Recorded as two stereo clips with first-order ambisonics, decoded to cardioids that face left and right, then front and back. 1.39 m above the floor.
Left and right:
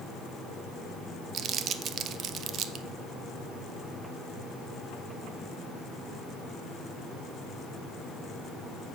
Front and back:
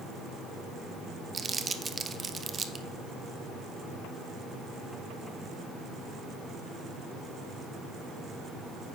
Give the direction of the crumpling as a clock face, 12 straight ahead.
4 o'clock.